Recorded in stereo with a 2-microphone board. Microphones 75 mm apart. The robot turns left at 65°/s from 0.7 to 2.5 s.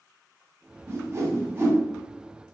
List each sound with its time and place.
0.9 s a whoosh: 40° right (ahead or behind), 2 m; by 1.8 s 20° right (ahead or behind), 2 m